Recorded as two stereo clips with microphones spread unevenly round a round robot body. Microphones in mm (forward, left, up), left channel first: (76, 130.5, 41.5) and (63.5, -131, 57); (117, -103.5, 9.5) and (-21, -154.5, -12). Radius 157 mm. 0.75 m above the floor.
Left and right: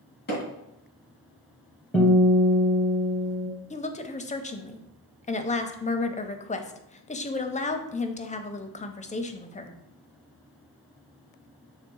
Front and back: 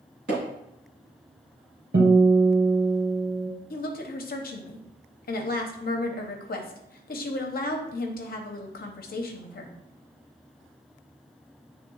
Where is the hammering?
150° left, 2 m.